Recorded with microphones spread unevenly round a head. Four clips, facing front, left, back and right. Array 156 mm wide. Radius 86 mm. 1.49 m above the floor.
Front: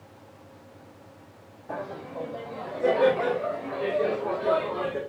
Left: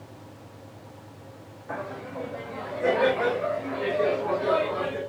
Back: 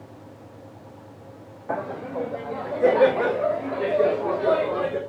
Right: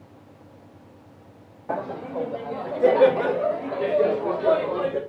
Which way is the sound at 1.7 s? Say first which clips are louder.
Right 6 dB, back 6 dB; 135° right.